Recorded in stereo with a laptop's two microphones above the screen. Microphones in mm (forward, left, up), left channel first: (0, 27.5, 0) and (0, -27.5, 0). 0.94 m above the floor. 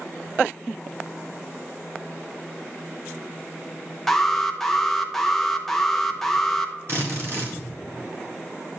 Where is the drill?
50° right (ahead or behind), 1.6 m.